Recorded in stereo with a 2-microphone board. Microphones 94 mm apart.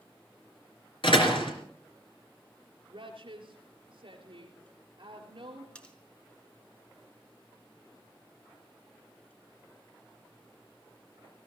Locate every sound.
1.0 s a door slam: 60° left (ahead or behind), 3 m
2.9 s a woman speaking: 60° right (ahead or behind), 4 m
5.8 s cutlery clinking: 10° left (ahead or behind), 1.9 m